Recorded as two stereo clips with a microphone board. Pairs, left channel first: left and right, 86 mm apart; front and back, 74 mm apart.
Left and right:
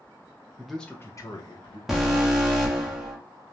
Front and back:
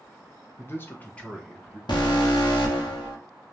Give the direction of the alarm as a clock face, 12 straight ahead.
12 o'clock.